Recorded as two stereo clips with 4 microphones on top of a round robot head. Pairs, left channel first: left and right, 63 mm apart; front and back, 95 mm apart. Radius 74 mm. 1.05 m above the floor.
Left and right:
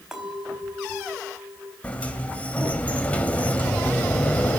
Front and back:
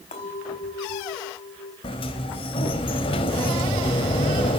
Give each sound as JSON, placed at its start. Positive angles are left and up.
{"t": 0.1, "sound": "a clink", "azimuth_deg": -10, "distance_m": 4.5}
{"t": 1.8, "sound": "a sliding door", "azimuth_deg": 25, "distance_m": 1.9}